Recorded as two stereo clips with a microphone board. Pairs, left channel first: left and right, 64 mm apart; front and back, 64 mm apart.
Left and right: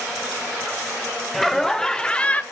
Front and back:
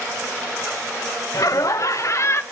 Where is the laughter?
5° left, 1.6 m; by 2.4 s 30° left, 1.2 m.